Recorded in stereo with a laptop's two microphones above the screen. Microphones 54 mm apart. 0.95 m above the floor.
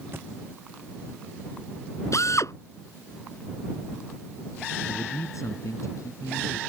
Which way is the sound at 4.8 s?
70° left (ahead or behind).